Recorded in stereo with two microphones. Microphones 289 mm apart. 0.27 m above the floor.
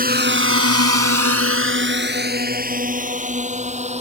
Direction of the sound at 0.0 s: 30° right (ahead or behind).